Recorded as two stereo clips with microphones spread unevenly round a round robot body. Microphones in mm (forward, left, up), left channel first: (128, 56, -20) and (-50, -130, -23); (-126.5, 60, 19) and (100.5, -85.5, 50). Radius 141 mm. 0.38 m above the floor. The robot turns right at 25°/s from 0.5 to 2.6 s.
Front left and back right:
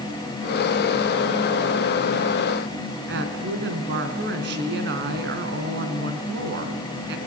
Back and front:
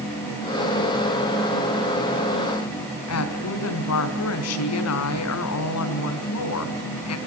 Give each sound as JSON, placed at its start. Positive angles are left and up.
{"t": 3.1, "sound": "a woman speaking", "azimuth_deg": 170, "distance_m": 3.5}